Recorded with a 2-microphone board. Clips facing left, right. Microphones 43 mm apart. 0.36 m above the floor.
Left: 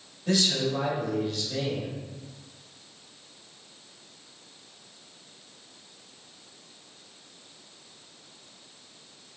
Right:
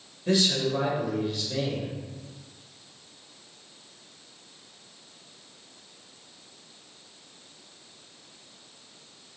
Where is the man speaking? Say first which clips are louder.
Right 1 dB; 20° right (ahead or behind), 1.0 m.